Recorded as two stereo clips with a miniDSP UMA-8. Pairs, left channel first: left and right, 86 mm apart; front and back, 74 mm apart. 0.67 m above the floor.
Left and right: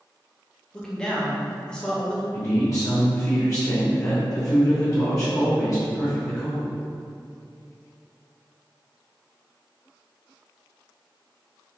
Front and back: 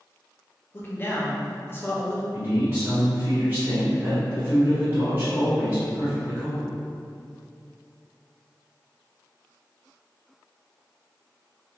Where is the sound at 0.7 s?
20° left, 0.5 m.